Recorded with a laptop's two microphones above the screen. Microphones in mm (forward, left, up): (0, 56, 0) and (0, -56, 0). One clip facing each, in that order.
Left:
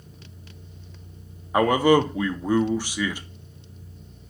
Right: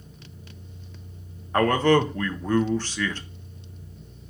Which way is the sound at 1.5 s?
10° left (ahead or behind).